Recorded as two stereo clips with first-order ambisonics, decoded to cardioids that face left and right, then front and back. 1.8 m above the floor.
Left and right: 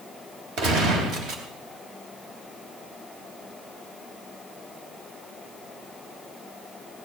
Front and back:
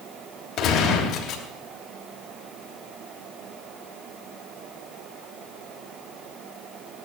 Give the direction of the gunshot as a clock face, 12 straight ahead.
2 o'clock.